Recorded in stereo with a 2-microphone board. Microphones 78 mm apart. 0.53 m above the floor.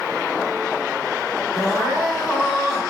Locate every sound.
1.5 s crying: 5° right (ahead or behind), 1.4 m